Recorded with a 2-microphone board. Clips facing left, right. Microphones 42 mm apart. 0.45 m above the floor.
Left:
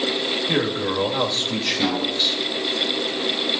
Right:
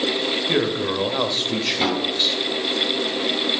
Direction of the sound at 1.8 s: 70° right (ahead or behind).